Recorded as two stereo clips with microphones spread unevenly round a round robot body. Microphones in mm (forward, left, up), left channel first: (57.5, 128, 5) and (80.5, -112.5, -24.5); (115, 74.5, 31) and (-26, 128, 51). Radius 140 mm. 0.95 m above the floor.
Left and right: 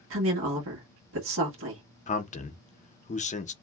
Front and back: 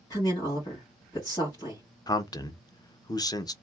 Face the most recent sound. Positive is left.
turn(degrees=35)